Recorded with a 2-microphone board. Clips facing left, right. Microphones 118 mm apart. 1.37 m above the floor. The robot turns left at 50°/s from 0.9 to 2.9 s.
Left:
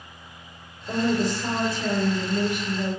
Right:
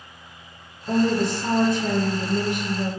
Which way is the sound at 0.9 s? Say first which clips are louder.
Right 3 dB; 75° right.